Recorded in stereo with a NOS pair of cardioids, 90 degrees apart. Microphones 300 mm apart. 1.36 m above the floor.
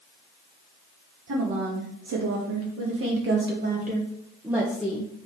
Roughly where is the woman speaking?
Ahead right.